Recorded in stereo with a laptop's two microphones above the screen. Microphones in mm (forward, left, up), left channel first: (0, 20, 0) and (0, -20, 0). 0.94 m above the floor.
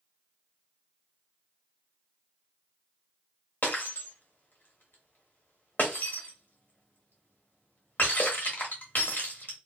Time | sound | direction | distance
3.6 | breaking glass | 50° left (ahead or behind) | 1.0 m